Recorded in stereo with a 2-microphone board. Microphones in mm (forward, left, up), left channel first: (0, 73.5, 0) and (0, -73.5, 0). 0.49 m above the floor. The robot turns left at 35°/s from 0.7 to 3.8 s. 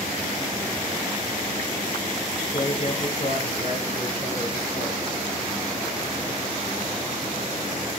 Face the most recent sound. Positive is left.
turn(degrees=100)